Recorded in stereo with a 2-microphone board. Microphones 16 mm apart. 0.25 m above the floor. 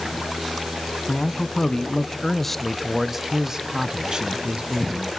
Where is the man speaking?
60° left (ahead or behind), 1.8 m; by 5.1 s 60° right (ahead or behind), 2.5 m.